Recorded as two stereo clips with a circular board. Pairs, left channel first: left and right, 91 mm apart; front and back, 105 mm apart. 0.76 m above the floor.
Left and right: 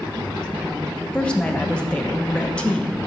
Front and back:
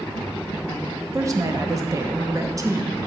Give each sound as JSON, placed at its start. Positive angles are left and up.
{"t": 1.1, "sound": "a woman speaking", "azimuth_deg": 160, "distance_m": 0.9}